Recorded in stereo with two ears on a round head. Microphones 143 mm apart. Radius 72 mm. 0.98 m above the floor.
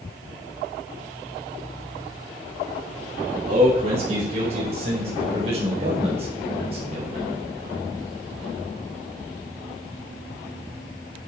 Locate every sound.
3.5 s a man speaking: 40° right (ahead or behind), 6 m